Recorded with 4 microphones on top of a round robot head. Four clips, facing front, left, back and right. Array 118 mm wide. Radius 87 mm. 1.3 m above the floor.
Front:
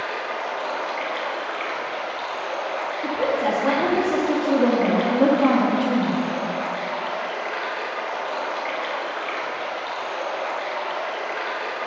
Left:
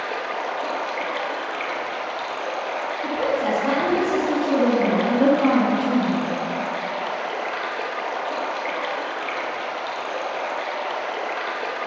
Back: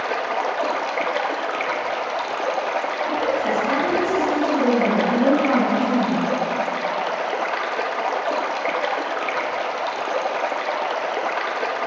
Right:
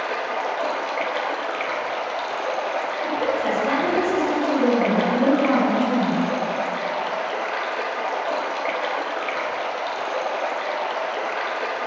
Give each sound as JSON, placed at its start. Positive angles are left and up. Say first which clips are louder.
{"t": 0.0, "sound": "running water", "louder": "right 2 dB, back 5 dB", "azimuth_deg": 180, "distance_m": 1.0}
{"t": 3.0, "sound": "a woman speaking", "louder": "left 1 dB, front 1 dB", "azimuth_deg": 20, "distance_m": 3.0}